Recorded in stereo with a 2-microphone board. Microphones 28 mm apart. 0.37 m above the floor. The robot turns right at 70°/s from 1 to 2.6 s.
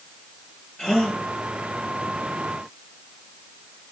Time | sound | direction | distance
0.8 | a gasp | 25° left (ahead or behind) | 6.5 m